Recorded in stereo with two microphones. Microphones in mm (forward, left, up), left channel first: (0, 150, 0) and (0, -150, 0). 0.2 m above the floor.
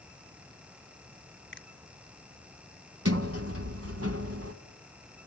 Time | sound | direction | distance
1.5 | a finger snap | 40° left (ahead or behind) | 1.7 m
3.0 | a sliding door | 50° right (ahead or behind) | 1.4 m